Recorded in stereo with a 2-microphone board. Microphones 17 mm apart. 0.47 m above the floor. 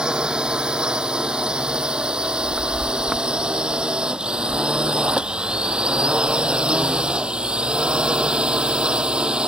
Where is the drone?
65° right (ahead or behind); by 9.5 s 75° right (ahead or behind).